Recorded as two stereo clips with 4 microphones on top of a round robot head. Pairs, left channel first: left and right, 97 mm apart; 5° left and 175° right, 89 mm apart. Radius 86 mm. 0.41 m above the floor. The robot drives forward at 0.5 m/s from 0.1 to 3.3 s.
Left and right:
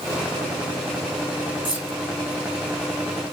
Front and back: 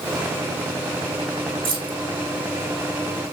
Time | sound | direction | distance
1.6 | keys jangling | 165° right | 2.0 m